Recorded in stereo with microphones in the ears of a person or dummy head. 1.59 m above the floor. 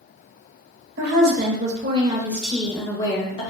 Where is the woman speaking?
65° right (ahead or behind), 0.8 m; by 3.5 s 35° left (ahead or behind), 0.9 m.